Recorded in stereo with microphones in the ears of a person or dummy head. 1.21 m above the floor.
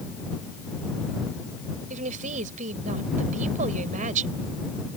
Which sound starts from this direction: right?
A woman speaking, at 1.9 s.